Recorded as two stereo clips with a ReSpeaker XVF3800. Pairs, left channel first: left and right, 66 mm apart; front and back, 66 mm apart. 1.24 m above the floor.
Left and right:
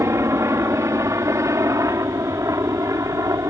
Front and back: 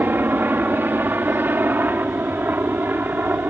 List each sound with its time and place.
0.0 s a helicopter: 125° right; by 3.5 s 120° right